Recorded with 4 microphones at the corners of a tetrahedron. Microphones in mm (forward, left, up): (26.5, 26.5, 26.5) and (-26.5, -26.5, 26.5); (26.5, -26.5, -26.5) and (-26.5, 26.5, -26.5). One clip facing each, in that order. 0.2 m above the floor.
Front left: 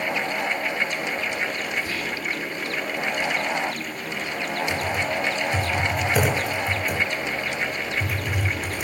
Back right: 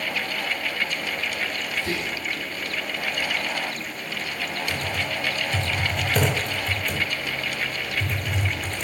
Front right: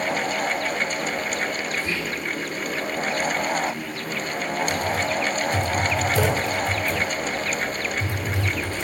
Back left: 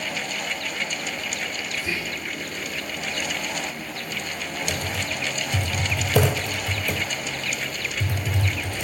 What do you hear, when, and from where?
1.8 s whispering: 145° right, 9 m
4.7 s typing on a keyboard: 130° left, 4.5 m